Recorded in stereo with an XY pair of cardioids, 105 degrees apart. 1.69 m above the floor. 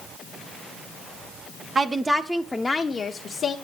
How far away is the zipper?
I don't hear a zipper.